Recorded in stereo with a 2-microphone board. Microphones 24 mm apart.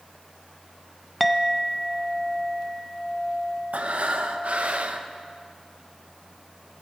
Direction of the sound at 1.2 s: Centre (ahead or behind).